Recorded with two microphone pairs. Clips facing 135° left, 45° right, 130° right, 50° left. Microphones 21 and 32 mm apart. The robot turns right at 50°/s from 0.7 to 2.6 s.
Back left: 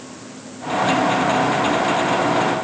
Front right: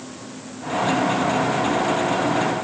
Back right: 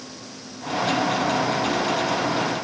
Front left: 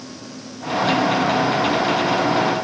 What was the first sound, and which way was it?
Only background noise.